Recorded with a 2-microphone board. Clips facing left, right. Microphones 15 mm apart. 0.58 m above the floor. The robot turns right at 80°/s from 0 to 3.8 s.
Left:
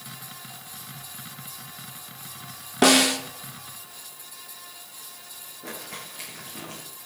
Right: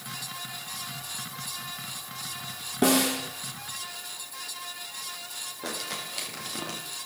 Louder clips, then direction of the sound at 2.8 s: Left 5 dB; 40° left (ahead or behind).